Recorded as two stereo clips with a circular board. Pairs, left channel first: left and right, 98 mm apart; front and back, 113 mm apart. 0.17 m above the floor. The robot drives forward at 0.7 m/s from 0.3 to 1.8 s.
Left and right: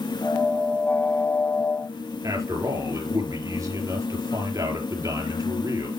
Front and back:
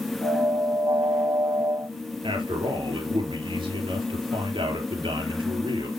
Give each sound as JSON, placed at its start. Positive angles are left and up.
{"t": 2.2, "sound": "a man speaking", "azimuth_deg": -140, "distance_m": 4.0}